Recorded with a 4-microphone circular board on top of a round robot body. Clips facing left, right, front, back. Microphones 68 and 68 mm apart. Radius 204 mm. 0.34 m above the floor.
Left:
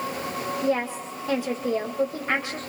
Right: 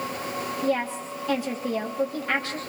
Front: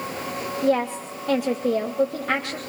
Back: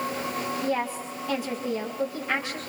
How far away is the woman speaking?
About 3 m.